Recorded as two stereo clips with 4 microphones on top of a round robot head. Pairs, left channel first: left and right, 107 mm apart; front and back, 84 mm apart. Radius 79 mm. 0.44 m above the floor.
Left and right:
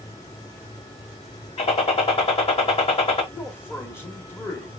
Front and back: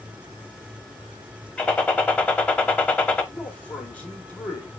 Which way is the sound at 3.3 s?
50° left.